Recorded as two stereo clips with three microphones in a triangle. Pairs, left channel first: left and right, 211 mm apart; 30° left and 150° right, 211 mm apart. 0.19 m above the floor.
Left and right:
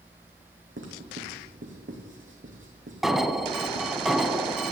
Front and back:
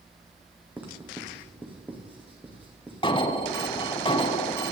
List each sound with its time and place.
0.8 s writing: 70° right, 3.5 m
3.0 s an alarm: 5° right, 0.8 m